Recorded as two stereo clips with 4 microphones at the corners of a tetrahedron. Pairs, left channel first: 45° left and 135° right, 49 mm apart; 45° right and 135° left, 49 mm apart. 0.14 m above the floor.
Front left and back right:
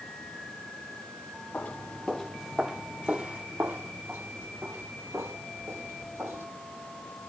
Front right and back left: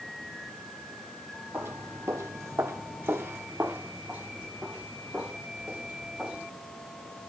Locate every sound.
1.5 s footsteps: 100° left, 0.8 m; by 6.5 s 155° right, 2 m